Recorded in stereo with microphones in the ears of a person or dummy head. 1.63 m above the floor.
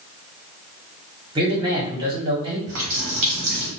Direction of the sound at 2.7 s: 50° right (ahead or behind).